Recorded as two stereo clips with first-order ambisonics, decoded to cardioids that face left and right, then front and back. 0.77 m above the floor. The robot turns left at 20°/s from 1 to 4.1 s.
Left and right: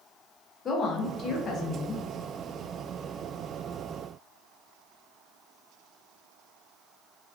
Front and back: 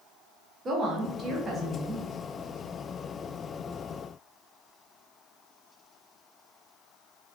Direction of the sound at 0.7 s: 135° left.